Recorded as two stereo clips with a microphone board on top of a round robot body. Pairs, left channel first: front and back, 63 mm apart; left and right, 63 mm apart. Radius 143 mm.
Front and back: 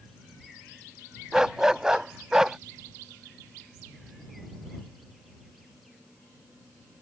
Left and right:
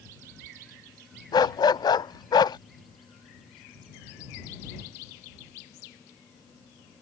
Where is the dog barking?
100° left.